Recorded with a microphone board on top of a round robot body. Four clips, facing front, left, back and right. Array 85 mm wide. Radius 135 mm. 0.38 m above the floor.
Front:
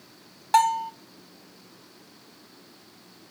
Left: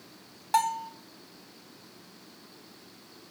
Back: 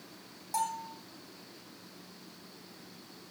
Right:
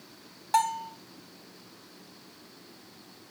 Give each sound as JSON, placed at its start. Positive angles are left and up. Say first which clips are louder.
{"t": 0.5, "sound": "a bell", "louder": "even, front 13 dB", "azimuth_deg": 5, "distance_m": 1.4}